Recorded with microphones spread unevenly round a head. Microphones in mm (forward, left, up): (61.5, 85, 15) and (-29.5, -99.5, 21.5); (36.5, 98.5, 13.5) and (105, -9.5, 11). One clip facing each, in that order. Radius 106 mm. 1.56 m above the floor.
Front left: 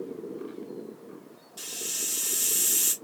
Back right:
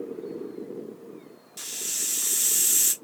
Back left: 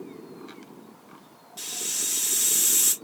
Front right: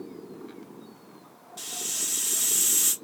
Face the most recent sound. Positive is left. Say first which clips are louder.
# front left 4 dB, back left 1 dB
turn(degrees=-155)